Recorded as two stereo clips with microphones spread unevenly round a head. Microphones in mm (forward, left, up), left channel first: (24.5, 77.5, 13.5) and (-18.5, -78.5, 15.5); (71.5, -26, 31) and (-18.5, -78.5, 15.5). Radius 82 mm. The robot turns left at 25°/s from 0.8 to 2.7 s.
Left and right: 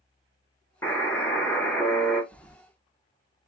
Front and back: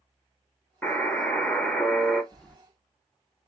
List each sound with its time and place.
0.8 s a buzzer: 30° left, 0.8 m; by 2.2 s 5° right, 0.8 m
2.3 s keys jangling: 10° left, 0.5 m; by 2.6 s straight ahead, 0.5 m